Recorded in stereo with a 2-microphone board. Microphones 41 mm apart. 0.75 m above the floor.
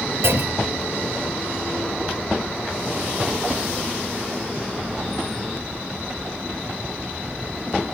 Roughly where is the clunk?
Right.